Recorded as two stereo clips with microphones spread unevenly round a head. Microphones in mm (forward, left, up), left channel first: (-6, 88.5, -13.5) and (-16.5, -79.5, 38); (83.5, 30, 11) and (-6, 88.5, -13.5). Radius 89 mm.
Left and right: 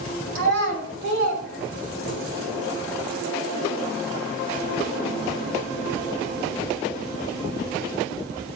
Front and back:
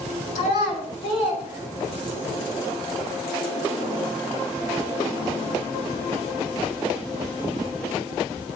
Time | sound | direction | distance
0.3 | a child speaking | 55° right | 5 m